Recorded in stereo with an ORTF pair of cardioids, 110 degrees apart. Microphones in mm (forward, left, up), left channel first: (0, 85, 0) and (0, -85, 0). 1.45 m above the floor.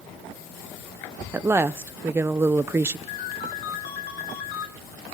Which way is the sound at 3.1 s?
60° left.